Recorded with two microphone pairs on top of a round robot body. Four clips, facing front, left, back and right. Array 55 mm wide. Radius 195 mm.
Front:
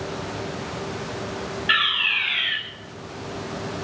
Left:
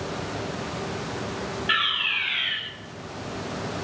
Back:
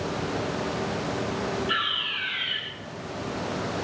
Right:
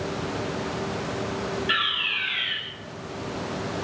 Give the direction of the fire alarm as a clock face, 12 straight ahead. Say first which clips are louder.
Left 3 dB, front 6 dB; 11 o'clock.